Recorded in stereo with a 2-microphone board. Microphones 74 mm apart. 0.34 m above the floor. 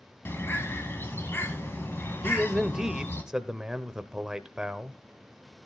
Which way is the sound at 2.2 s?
10° right (ahead or behind).